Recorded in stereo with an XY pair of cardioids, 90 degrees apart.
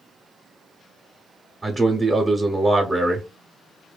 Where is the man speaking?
30° right, 0.8 m.